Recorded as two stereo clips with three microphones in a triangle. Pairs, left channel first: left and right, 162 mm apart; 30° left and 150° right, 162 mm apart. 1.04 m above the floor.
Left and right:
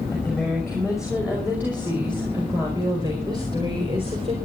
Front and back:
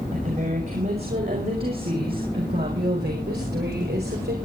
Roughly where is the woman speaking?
Behind.